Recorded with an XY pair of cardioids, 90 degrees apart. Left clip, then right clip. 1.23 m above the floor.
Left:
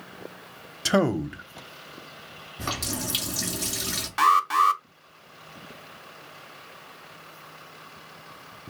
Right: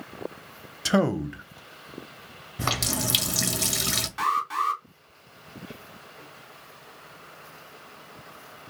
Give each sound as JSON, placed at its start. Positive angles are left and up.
{"t": 0.8, "sound": "a man speaking", "azimuth_deg": 10, "distance_m": 0.5}
{"t": 2.6, "sound": "a running tap", "azimuth_deg": -60, "distance_m": 0.7}
{"t": 4.2, "sound": "an alarm", "azimuth_deg": 65, "distance_m": 0.5}